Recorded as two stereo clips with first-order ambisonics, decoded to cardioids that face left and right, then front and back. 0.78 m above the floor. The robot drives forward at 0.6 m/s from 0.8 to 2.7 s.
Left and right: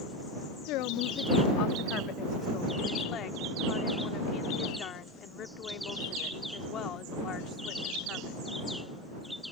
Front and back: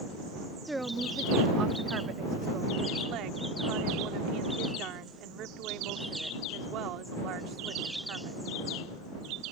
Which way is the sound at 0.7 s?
95° left.